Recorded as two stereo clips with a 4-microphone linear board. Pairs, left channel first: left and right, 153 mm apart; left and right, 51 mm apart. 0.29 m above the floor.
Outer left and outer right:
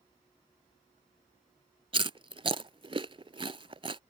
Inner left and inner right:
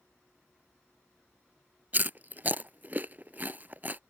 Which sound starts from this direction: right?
Chewing, at 1.9 s.